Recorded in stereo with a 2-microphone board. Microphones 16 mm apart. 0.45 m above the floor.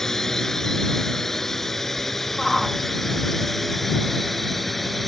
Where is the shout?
Centre (ahead or behind).